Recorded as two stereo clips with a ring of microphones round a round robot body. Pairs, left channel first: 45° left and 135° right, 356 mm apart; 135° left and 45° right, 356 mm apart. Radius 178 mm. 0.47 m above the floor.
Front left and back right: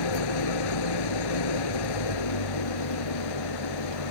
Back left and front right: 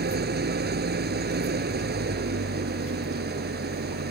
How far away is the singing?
I don't hear singing.